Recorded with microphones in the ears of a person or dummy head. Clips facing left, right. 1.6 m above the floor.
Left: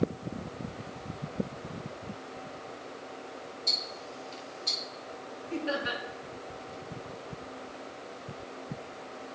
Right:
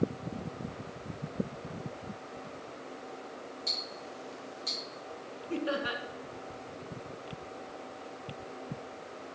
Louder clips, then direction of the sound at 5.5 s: Even; 50° right (ahead or behind).